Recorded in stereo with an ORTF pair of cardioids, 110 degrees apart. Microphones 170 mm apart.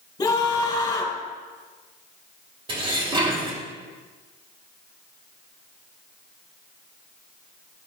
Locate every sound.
0.2 s a scream: 25° left, 3.5 m
2.7 s dishes clattering: 30° right, 2.5 m